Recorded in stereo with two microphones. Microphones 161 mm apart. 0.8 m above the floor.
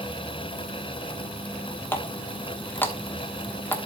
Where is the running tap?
15° left (ahead or behind), 1.1 m.